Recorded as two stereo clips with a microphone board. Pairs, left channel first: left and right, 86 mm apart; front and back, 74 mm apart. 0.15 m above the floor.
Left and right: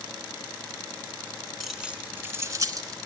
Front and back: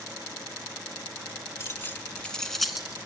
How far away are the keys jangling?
About 0.8 m.